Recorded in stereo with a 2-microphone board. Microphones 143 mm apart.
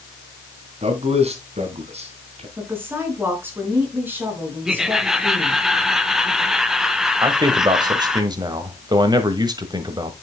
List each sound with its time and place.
0.8 s a man speaking: 50° right (ahead or behind), 3 m
2.6 s a woman speaking: 15° right (ahead or behind), 4.5 m
4.7 s laughter: 5° right (ahead or behind), 1.4 m
7.2 s a man speaking: 30° right (ahead or behind), 1.4 m